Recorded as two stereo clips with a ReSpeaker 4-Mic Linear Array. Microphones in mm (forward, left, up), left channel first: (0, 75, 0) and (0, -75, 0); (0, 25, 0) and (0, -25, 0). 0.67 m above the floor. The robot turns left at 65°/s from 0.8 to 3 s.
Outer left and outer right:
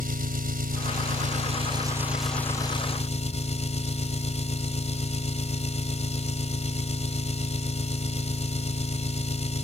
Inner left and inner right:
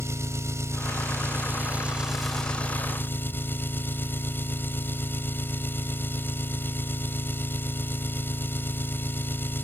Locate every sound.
0.0 s an engine running: 85° right; by 9.7 s 130° left